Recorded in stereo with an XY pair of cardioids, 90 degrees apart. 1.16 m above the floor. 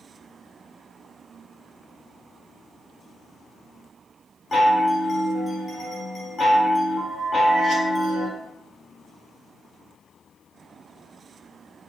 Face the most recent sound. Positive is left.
turn(degrees=35)